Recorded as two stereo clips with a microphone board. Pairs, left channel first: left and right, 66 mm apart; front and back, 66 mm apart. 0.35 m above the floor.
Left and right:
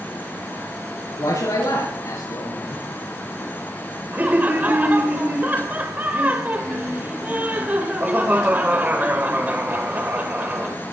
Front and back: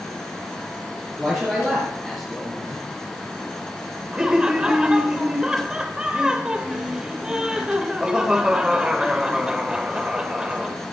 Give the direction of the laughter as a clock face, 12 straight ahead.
4 o'clock.